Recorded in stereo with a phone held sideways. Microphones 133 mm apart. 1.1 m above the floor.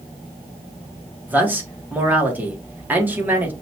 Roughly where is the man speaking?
Centre.